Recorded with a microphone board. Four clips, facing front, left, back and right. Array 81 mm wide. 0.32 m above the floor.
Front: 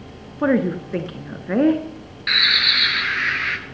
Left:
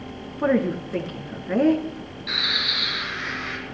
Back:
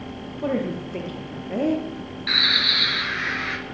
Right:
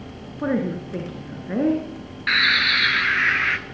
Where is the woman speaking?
10° left, 3.5 m.